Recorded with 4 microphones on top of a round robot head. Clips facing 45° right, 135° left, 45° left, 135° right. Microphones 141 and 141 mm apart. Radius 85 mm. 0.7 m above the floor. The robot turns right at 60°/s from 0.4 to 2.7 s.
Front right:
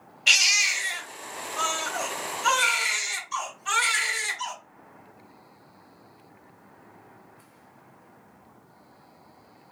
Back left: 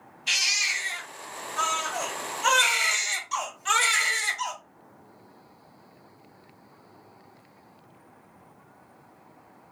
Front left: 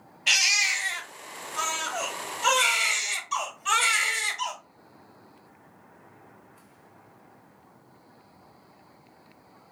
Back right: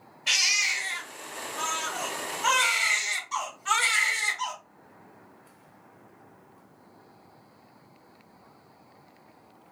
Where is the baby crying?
25° right, 1.8 m; by 4.5 s 110° left, 1.8 m.